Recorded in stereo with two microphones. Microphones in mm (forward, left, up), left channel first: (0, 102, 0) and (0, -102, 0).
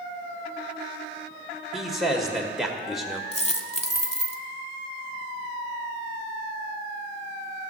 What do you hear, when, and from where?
1.7 s a man speaking: centre (ahead or behind), 1.1 m
3.3 s a dropped coin: 30° left (ahead or behind), 0.7 m